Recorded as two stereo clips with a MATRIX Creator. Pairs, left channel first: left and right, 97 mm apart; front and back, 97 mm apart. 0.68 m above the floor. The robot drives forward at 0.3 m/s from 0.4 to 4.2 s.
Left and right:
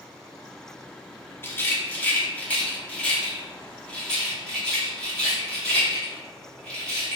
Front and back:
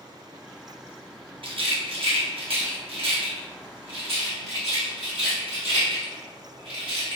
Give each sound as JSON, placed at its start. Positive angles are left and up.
{"t": 1.4, "sound": "a rattle", "azimuth_deg": 155, "distance_m": 0.5}